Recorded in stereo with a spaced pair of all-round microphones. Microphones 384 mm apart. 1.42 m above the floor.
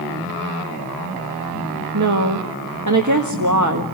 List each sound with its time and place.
1.9 s a woman speaking: 50° right (ahead or behind), 1.7 m